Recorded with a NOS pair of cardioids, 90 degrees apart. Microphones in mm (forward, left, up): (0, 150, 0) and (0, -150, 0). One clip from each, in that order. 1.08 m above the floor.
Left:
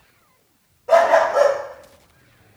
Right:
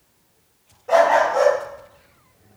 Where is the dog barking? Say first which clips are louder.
Left 1 dB; 20° left, 1.8 m; by 2.6 s 30° left, 2.5 m.